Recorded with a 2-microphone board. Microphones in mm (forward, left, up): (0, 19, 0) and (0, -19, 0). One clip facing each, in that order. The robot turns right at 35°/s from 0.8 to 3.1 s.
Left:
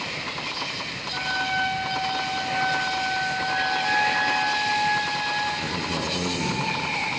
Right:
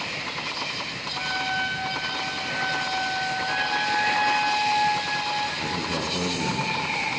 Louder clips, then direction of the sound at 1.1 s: Left 2 dB; 35° left.